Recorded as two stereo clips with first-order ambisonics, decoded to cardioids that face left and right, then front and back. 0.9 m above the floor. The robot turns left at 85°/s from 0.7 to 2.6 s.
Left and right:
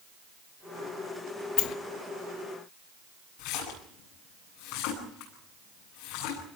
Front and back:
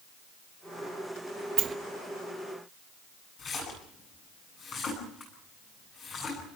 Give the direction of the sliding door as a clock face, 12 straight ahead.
8 o'clock.